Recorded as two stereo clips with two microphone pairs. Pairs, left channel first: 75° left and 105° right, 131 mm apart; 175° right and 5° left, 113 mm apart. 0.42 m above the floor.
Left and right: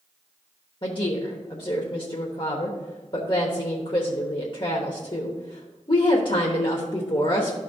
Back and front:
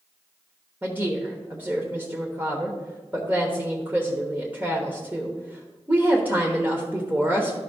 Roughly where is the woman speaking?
Left.